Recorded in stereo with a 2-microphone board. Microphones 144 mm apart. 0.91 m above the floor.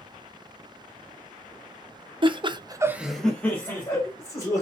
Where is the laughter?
35° right (ahead or behind), 0.8 m; by 4.6 s 20° left (ahead or behind), 1.9 m.